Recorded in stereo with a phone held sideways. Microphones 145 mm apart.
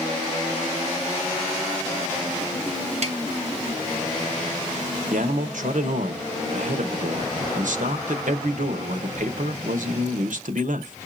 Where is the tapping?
55° right (ahead or behind), 1.7 m.